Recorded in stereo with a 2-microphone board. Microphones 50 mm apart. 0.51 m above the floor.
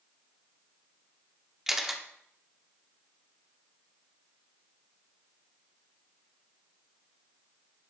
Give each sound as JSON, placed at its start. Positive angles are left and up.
{"t": 1.7, "sound": "a camera shutter", "side_deg": -10, "distance_m": 0.7}